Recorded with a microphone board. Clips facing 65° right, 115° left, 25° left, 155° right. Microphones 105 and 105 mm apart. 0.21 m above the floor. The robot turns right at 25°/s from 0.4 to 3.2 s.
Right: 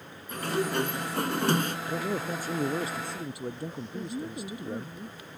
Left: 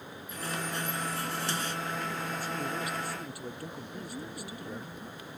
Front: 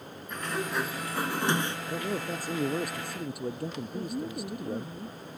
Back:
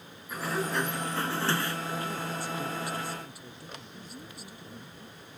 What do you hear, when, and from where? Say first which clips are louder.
0.3 s a sliding door: right 8 dB, back 1 dB; 75° right; by 1.8 s 40° right
1.9 s a man speaking: right 4 dB, front 2 dB; 30° right; by 4.9 s straight ahead
3.9 s a woman speaking: right 7 dB, front 12 dB; 5° right